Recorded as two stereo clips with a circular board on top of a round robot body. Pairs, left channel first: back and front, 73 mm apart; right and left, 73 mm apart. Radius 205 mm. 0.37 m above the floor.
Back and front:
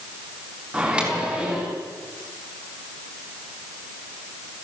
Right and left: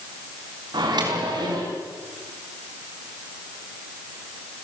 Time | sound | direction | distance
0.7 | a microwave | 75° left | 5 m